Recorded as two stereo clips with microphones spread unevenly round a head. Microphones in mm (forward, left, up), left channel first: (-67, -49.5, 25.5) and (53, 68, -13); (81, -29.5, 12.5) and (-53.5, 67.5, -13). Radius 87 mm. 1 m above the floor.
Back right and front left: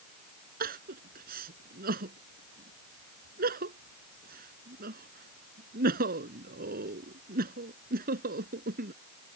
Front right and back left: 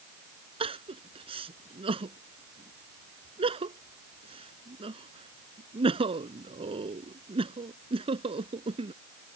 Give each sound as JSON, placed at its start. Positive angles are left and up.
{"t": 0.6, "sound": "crying", "azimuth_deg": 85}